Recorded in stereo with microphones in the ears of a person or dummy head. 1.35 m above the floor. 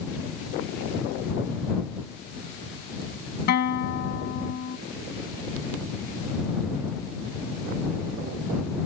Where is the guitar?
55° left (ahead or behind).